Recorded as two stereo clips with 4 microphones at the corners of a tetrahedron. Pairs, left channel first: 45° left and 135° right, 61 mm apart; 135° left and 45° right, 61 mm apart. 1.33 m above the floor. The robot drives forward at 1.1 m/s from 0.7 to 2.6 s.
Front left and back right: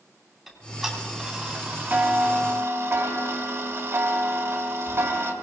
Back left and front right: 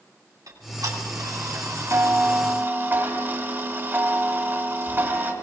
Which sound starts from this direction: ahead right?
Ticking, at 0.5 s.